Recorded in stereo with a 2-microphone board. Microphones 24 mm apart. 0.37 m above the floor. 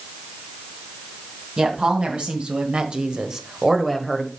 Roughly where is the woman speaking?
Right.